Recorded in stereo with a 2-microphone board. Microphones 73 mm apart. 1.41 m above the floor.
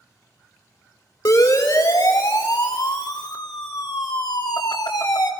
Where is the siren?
60° left (ahead or behind), 3.5 m; by 5.3 s 65° left (ahead or behind), 3 m.